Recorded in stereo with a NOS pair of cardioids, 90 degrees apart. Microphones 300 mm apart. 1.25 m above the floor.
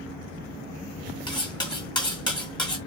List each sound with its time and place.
1.3 s cutlery clinking: 15° left, 1.3 m